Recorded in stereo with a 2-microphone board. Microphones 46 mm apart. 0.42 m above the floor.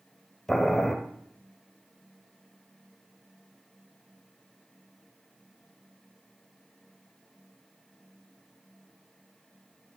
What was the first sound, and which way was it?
Boiling, 5° left (ahead or behind).